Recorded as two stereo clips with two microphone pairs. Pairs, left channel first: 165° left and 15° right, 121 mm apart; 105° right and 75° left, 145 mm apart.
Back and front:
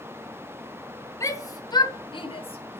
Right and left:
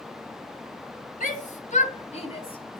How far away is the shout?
About 3 m.